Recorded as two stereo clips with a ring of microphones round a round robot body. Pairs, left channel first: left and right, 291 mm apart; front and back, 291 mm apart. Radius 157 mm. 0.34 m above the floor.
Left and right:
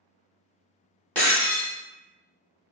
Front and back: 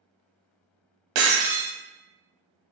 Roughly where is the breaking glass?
Behind.